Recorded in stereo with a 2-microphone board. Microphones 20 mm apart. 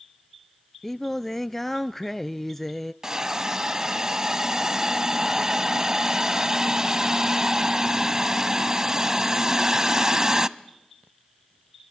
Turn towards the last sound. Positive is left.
turn(degrees=-30)  # may be behind; listen again after turning